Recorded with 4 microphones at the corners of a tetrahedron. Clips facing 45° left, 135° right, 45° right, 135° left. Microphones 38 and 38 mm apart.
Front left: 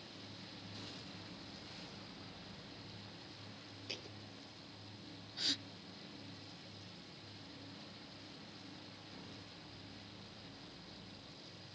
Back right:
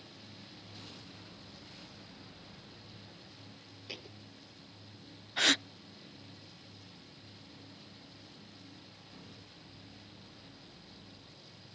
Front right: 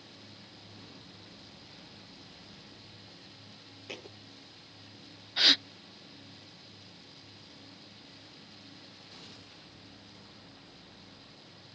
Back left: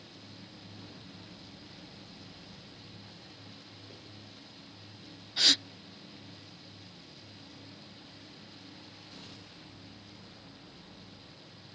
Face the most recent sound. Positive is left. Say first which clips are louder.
# back right 13 dB, front right 2 dB
turn(degrees=-115)